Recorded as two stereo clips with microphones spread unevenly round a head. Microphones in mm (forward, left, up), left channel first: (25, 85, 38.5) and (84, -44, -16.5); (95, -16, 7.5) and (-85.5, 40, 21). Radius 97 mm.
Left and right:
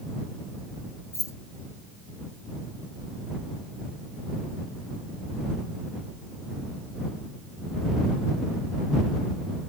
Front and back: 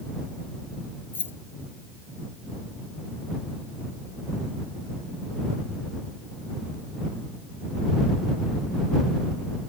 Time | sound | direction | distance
1.1 | keys jangling | 65° left | ?